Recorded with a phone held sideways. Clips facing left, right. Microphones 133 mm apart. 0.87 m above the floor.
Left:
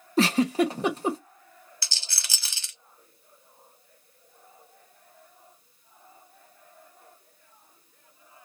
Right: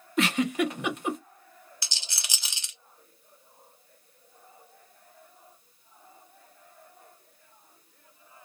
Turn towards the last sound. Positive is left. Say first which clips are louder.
# even
turn(degrees=-20)  # may be behind; listen again after turning